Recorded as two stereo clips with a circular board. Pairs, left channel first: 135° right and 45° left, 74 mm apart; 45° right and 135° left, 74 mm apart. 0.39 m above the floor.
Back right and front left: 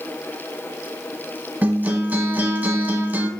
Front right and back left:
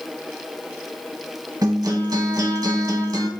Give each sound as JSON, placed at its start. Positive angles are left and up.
{"t": 1.6, "sound": "a guitar", "azimuth_deg": 110, "distance_m": 0.8}